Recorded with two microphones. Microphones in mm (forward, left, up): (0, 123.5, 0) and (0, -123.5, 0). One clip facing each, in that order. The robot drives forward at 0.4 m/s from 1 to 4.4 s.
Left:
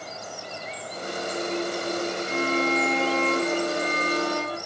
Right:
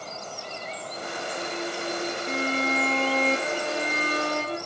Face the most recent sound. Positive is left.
turn(degrees=-25)  # may be behind; listen again after turning